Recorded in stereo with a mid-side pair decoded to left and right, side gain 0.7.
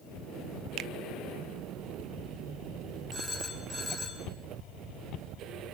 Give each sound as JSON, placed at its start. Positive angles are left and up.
{"t": 0.8, "sound": "a finger snap", "azimuth_deg": -50, "distance_m": 0.8}
{"t": 3.1, "sound": "a phone ringing", "azimuth_deg": -10, "distance_m": 7.0}